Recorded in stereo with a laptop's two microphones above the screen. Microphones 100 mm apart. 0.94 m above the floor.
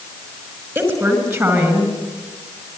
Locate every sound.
0.8 s a woman speaking: 30° right (ahead or behind), 5 m